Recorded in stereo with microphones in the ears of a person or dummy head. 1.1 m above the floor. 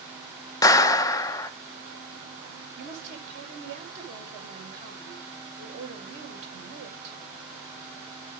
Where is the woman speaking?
40° right (ahead or behind), 4.5 m.